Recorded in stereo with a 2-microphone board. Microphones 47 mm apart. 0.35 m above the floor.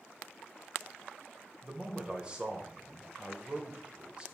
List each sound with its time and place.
1.6 s a man speaking: 20° right (ahead or behind), 1.0 m